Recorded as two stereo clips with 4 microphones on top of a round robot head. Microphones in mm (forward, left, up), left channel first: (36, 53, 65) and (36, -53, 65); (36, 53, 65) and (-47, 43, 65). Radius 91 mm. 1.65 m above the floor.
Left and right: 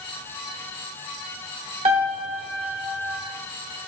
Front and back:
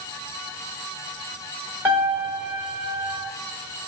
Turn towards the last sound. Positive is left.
turn(degrees=-100)